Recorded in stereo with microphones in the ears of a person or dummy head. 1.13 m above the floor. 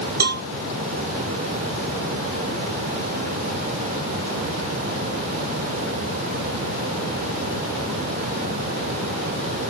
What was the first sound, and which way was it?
A cowbell, 55° right (ahead or behind).